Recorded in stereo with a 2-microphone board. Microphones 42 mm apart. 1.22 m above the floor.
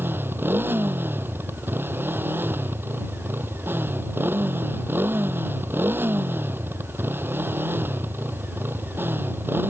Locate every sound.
0.0 s a motorcycle: 60° right (ahead or behind)